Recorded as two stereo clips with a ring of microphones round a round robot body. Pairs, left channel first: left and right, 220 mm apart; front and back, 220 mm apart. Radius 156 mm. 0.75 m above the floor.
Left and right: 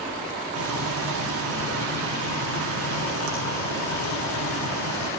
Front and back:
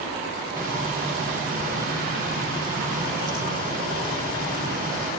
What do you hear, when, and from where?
0.6 s frying: 80° right, 9.5 m